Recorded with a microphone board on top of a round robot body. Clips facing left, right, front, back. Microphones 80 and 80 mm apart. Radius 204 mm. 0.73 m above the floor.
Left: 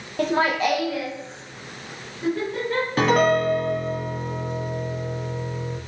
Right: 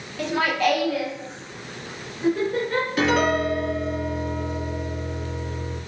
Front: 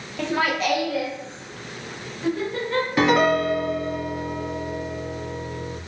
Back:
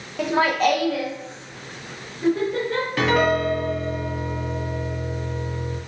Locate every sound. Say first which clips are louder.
0.2 s laughter: left 1 dB, back 4 dB; 100° left, 1.1 m; by 2.9 s 160° right, 4 m
3.0 s a piano: left 3 dB, front 1 dB; 65° left, 1.3 m